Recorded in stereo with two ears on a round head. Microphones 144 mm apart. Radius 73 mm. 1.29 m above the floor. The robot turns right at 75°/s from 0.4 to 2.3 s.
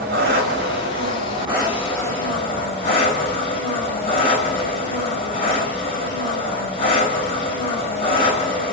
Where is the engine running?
105° right, 4.5 m; by 8.7 s 35° left, 4.5 m.